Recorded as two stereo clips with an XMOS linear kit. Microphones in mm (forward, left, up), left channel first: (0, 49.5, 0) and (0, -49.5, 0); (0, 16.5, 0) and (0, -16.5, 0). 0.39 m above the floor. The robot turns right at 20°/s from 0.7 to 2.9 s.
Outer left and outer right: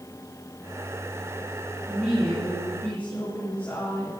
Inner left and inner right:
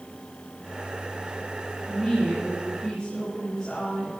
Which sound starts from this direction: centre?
A woman speaking, at 1.9 s.